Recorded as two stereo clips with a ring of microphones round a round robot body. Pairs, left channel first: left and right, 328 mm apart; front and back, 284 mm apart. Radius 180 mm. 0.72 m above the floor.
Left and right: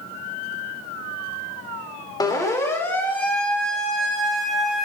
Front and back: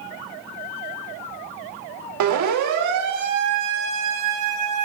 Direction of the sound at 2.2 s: 170° left.